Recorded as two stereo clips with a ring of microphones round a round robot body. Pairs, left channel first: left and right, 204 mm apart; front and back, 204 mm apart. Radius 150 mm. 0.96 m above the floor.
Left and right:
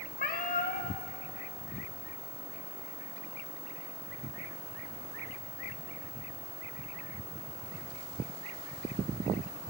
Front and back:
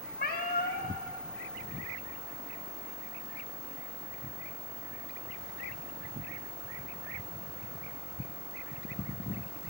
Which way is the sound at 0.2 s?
45° left.